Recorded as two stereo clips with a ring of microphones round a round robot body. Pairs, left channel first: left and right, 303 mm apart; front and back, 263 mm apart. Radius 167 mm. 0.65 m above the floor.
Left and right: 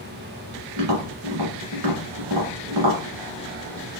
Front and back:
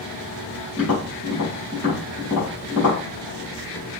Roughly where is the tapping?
Right.